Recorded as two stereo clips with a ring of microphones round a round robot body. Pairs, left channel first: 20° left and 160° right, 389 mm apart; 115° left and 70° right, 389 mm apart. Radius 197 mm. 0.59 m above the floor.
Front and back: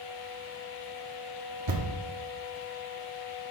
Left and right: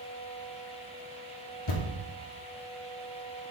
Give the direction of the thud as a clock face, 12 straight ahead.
7 o'clock.